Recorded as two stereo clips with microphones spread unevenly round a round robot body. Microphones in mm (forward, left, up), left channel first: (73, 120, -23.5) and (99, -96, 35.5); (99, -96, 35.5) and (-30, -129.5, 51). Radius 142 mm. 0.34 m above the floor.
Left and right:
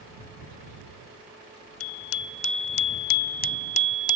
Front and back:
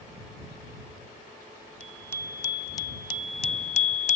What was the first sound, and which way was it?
A bicycle bell, 95° left.